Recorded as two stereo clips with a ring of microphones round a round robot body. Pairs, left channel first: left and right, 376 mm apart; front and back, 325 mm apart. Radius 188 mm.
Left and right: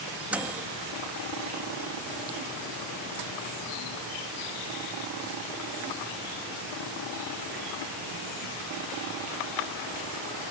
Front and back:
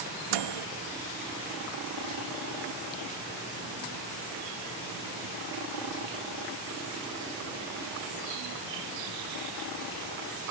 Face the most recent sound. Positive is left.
turn(degrees=-175)